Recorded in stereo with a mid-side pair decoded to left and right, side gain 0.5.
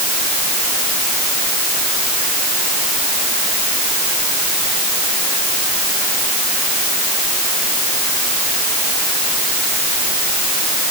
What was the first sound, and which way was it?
Only background noise.